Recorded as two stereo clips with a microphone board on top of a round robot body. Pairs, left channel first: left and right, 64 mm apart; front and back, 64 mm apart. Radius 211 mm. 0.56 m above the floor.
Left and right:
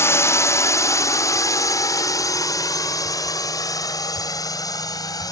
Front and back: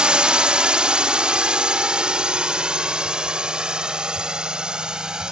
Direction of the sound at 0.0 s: 110° left.